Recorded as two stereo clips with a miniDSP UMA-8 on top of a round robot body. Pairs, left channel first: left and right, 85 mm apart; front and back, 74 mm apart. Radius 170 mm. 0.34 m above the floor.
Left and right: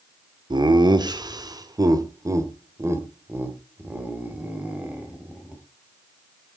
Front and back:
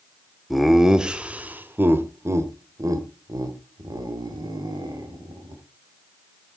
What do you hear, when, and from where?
0.5 s laughter: 90° right, 1.6 m; by 5.6 s 170° right, 3 m